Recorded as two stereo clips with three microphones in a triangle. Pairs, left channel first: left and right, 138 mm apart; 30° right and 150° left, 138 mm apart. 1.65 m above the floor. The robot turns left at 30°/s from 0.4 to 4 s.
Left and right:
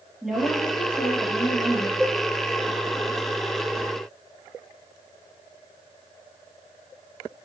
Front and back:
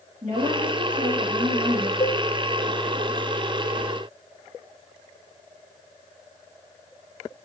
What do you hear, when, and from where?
0.2 s a woman speaking: straight behind, 3 m; by 1.9 s 135° left, 3 m
2.0 s a cowbell: 10° left, 0.6 m; by 2.2 s straight ahead, 0.6 m